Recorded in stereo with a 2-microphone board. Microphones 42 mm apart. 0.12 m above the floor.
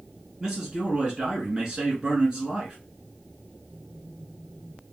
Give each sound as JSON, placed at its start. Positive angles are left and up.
{"t": 0.4, "sound": "a man speaking", "side_deg": -15, "distance_m": 1.2}